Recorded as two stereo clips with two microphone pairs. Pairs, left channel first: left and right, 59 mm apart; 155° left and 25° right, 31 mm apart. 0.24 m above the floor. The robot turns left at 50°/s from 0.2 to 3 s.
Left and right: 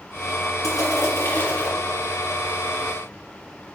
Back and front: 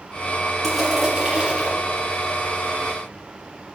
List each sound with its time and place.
0.6 s crushing: 80° left, 4.5 m; by 1.7 s 25° left, 4.5 m